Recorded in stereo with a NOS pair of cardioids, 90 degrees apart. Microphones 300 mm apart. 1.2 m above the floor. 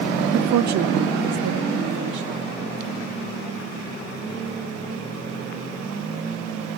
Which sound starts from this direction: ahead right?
A woman speaking, at 0.3 s.